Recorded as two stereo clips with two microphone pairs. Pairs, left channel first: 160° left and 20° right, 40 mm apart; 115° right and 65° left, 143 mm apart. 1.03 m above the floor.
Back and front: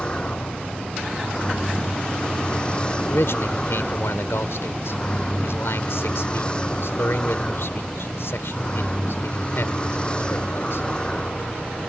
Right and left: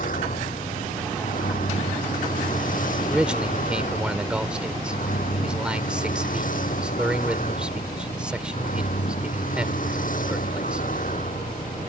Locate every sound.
0.0 s a vehicle: 135° right
3.1 s a man speaking: 150° left